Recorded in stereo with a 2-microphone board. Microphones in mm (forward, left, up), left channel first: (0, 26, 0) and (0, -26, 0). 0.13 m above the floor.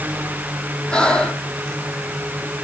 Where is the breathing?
20° left (ahead or behind), 4.5 m.